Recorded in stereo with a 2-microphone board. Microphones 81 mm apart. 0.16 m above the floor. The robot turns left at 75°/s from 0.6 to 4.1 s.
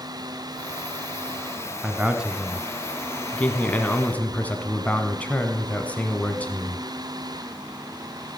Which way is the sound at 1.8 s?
15° right (ahead or behind).